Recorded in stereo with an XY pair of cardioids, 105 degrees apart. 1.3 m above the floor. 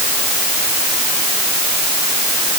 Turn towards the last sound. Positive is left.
No sound to turn to.